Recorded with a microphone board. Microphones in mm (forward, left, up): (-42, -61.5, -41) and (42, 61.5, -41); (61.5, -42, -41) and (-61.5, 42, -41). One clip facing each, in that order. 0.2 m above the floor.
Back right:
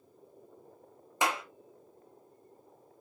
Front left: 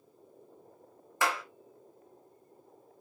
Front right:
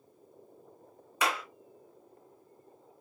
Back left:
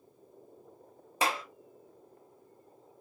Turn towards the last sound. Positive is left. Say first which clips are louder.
# even, even
turn(degrees=180)